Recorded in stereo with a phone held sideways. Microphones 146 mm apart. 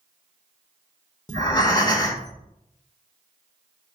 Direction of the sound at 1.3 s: 30° left (ahead or behind).